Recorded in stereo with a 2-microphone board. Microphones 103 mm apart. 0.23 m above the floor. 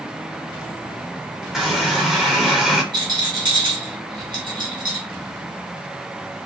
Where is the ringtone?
No ringtone in this recording.